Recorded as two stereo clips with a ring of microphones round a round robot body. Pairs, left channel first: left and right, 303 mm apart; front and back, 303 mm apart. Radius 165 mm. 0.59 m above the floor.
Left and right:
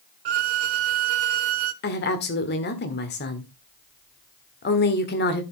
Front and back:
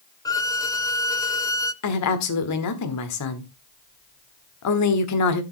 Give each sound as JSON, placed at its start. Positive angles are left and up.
{"t": 0.2, "sound": "a violin", "azimuth_deg": -80, "distance_m": 1.0}
{"t": 1.8, "sound": "a woman speaking", "azimuth_deg": 35, "distance_m": 1.6}